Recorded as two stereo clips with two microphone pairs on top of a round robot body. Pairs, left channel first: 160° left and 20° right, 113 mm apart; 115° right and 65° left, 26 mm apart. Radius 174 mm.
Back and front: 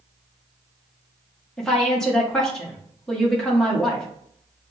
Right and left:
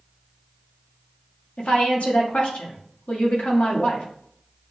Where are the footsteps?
I don't hear footsteps.